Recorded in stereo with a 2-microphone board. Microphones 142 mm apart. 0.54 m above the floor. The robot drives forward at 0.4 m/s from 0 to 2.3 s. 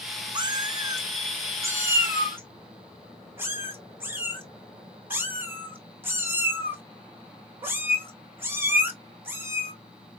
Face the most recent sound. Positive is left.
turn(degrees=-15)  # may be behind; listen again after turning